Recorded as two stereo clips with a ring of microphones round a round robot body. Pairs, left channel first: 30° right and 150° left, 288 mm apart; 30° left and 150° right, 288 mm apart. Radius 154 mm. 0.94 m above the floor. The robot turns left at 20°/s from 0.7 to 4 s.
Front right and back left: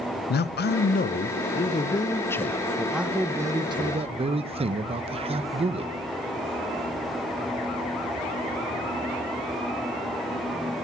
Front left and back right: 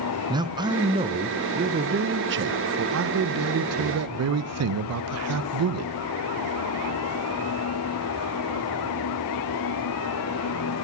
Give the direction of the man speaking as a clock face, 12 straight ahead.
3 o'clock.